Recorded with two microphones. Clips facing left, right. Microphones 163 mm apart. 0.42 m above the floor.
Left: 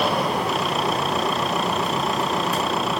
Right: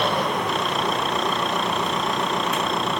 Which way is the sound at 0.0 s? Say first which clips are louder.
Left 1 dB; 5° left (ahead or behind).